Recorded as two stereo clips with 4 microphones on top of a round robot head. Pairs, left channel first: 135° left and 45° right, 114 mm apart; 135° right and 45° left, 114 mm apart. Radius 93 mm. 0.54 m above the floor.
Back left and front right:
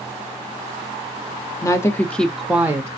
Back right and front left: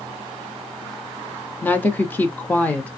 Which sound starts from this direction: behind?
A woman speaking, at 1.6 s.